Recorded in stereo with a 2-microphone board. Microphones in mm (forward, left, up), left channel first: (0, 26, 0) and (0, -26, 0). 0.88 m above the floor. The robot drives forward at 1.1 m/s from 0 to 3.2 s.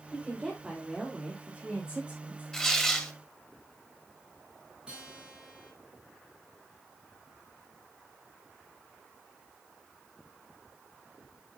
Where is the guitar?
20° right (ahead or behind), 5.5 m.